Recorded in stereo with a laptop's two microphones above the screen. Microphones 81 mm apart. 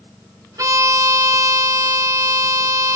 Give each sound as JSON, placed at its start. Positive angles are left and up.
{"t": 0.6, "sound": "a violin", "side_deg": -50, "distance_m": 1.4}